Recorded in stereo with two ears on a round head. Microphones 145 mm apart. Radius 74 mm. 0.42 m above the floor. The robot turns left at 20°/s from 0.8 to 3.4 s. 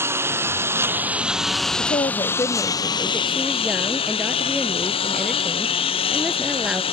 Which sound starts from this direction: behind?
A lawn mower, at 0.0 s.